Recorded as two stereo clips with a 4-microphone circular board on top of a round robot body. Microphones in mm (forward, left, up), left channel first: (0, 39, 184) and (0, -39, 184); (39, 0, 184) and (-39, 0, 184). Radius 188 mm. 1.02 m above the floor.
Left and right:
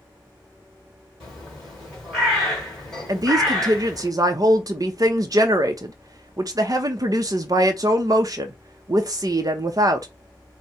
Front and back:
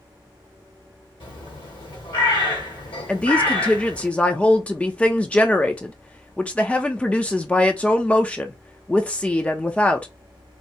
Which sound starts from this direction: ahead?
A bird, at 1.2 s.